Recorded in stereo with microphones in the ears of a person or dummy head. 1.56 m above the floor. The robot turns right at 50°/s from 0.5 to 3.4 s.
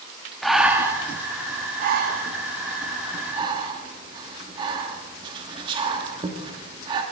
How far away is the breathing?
About 1.6 m.